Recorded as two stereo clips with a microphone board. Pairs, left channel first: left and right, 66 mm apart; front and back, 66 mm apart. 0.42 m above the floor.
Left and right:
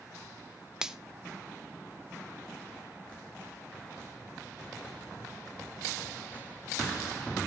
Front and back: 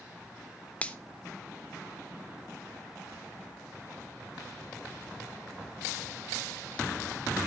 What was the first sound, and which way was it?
A finger snap, 25° right.